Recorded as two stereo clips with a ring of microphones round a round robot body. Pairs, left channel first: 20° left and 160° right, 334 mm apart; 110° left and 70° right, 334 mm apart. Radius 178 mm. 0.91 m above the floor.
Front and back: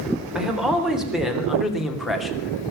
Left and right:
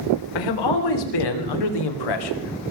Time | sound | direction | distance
0.3 | a man speaking | 115° left | 3.5 m